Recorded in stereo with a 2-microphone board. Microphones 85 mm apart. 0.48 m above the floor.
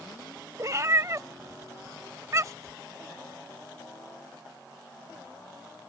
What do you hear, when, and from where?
0.6 s a cat meowing: 40° right (ahead or behind)